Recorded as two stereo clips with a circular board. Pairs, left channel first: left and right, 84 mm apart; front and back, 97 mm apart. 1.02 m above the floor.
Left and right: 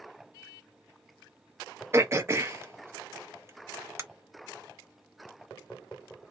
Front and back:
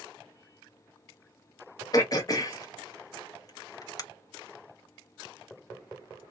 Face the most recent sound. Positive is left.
turn(degrees=-40)